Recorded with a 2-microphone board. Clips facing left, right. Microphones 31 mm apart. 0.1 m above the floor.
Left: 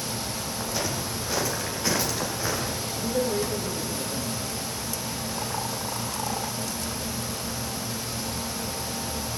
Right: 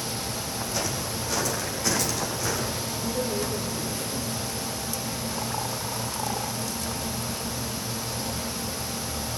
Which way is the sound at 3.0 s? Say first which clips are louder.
Left 4 dB; 55° left (ahead or behind).